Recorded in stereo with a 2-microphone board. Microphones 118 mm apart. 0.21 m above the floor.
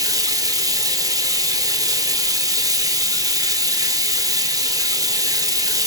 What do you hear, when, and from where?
0.0 s running water: 30° right (ahead or behind), 0.9 m